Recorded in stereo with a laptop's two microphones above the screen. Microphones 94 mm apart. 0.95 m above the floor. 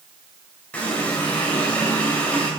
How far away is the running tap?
About 3 m.